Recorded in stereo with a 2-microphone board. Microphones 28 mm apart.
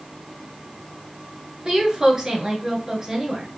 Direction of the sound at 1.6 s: 25° right (ahead or behind).